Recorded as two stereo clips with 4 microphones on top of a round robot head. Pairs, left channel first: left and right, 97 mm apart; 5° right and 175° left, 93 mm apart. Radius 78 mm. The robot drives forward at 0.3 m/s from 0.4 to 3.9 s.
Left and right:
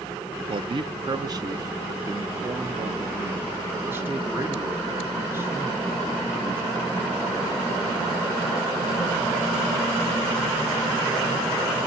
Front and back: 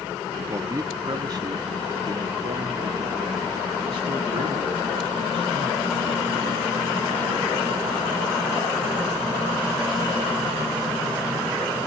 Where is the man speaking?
125° right, 0.8 m; by 7.6 s 155° right, 1.6 m.